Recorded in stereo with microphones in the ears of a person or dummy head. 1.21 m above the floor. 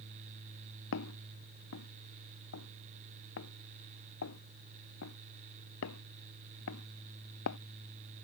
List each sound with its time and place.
0.9 s footsteps: 70° left (ahead or behind)